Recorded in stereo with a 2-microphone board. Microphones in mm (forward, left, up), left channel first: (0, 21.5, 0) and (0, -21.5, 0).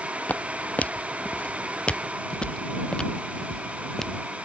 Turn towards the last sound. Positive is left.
turn(degrees=10)  # may be behind; listen again after turning